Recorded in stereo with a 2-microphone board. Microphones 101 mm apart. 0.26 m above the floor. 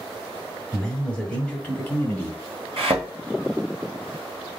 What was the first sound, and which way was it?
A man speaking, 5° left (ahead or behind).